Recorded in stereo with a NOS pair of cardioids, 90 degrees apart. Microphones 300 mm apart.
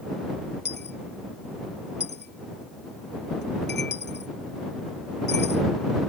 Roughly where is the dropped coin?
Ahead left.